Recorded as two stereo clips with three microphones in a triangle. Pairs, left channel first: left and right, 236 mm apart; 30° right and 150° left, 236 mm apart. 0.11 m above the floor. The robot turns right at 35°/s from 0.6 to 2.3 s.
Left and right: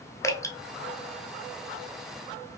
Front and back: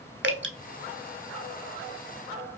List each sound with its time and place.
0.2 s dripping: 165° left, 0.7 m